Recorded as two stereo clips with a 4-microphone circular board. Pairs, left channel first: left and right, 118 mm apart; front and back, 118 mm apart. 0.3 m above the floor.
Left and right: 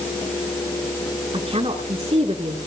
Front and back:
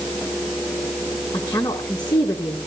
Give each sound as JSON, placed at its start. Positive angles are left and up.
{"t": 1.3, "sound": "a woman speaking", "azimuth_deg": -55, "distance_m": 3.0}